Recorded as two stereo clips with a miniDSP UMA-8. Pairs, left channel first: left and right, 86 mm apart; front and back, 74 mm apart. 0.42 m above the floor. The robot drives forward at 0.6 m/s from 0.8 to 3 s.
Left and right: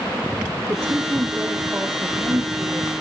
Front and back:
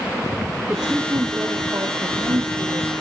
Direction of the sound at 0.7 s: 110° right.